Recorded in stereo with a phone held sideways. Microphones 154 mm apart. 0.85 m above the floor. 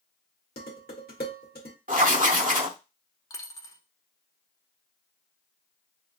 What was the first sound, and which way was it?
Dishes clattering, 80° left.